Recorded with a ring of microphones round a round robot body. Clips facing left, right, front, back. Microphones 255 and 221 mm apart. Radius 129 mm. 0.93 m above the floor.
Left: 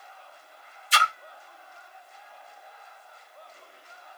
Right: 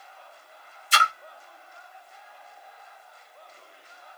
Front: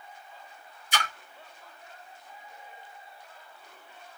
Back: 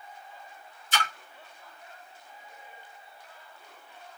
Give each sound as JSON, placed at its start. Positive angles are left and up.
{"t": 0.9, "sound": "a splash", "azimuth_deg": -75, "distance_m": 1.0}